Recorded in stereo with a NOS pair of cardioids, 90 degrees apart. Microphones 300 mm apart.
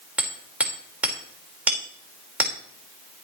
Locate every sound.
0.2 s hammering: 5° right, 4.5 m